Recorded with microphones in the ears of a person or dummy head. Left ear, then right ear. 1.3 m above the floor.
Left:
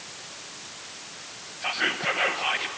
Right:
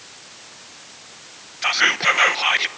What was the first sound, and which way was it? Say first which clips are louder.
Whispering: right 9 dB; 45° right (ahead or behind).